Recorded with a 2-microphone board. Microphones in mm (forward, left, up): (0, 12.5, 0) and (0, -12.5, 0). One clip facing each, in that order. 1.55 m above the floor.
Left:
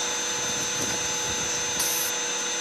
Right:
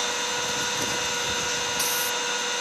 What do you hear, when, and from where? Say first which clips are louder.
0.0 s an engine running: right 2 dB; 50° right (ahead or behind), 2 m